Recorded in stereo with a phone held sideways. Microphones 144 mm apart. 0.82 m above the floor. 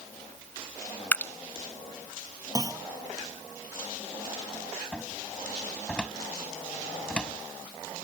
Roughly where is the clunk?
Right.